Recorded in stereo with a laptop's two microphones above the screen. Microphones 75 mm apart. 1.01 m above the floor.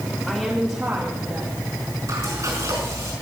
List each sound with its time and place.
0.3 s a woman speaking: centre (ahead or behind), 1.7 m; by 1.7 s 55° right (ahead or behind), 1.7 m
2.1 s frying: 45° right (ahead or behind), 4.5 m